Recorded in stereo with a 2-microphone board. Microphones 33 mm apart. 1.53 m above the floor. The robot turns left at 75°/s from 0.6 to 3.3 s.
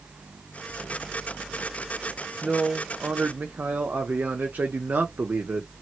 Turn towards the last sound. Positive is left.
turn(degrees=-75)